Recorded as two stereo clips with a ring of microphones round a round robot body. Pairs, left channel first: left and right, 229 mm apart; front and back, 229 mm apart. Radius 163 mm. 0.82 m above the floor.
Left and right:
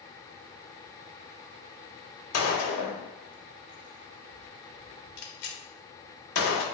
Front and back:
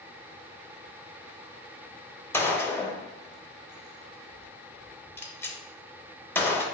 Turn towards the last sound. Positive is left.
turn(degrees=80)